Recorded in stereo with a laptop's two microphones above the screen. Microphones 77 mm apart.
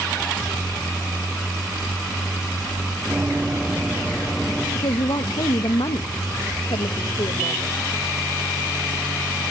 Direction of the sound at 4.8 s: 80° left.